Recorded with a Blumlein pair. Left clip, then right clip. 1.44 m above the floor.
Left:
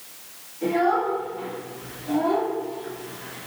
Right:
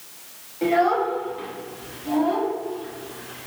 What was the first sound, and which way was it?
A child speaking, 50° right.